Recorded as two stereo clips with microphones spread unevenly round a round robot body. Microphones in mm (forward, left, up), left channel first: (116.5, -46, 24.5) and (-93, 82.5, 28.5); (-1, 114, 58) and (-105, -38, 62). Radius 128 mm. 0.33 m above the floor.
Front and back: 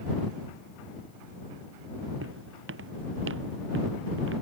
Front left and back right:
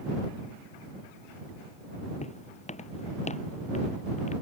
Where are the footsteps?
110° left; by 4.3 s 105° left.